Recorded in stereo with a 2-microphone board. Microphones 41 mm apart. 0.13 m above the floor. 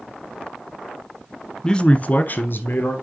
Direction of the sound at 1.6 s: 15° left (ahead or behind).